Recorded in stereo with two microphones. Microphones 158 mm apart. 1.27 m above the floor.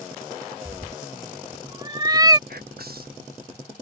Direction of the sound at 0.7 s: 25° right (ahead or behind).